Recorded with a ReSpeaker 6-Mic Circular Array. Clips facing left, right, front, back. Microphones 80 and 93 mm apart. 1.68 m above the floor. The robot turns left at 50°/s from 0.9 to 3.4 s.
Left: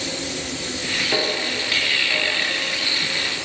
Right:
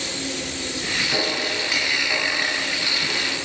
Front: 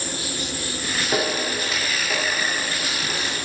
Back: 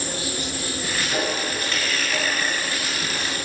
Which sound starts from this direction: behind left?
An insect, at 0.0 s.